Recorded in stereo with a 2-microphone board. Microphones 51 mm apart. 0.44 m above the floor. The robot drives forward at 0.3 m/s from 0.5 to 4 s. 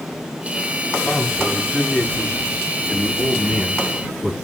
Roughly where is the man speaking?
Centre.